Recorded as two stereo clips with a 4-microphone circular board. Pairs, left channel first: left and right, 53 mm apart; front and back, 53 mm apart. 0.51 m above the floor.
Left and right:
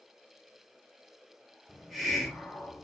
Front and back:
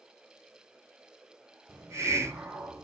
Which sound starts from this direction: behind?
A hiss, at 1.7 s.